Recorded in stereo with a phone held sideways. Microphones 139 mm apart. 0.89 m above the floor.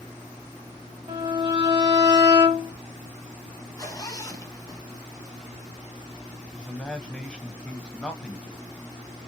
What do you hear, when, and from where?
1.1 s a violin: 30° right (ahead or behind), 0.8 m
3.8 s a zipper: 25° left (ahead or behind), 0.5 m
6.5 s a man speaking: 10° left (ahead or behind), 0.7 m